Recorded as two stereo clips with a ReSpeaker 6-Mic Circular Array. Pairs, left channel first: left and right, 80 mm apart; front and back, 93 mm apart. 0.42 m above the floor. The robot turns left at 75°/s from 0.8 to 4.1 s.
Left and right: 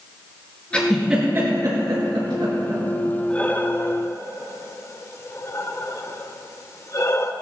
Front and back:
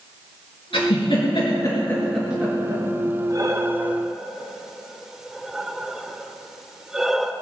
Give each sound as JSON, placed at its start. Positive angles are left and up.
{"t": 0.7, "sound": "a giggle", "azimuth_deg": 15, "distance_m": 5.0}
{"t": 3.3, "sound": "breathing", "azimuth_deg": 160, "distance_m": 0.8}